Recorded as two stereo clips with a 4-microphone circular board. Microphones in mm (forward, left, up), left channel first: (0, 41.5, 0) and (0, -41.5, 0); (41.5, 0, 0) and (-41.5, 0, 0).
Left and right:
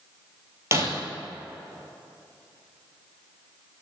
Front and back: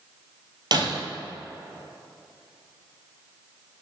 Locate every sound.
0.7 s breaking glass: 145° right, 1.3 m